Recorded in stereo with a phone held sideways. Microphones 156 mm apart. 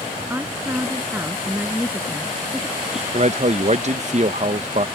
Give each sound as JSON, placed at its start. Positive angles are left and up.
{"t": 0.3, "sound": "a woman speaking", "side_deg": -15}
{"t": 3.1, "sound": "a man speaking", "side_deg": -45}